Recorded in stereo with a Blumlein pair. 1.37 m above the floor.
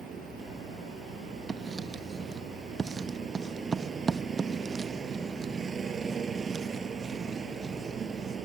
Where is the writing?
15° right.